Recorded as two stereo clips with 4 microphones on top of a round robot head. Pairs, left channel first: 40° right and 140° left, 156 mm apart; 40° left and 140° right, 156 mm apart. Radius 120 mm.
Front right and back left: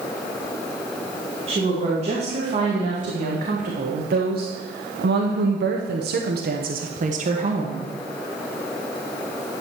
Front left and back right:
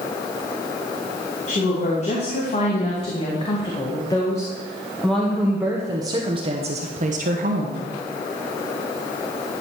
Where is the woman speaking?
85° left, 2.5 m; by 7.9 s 165° right, 1.4 m.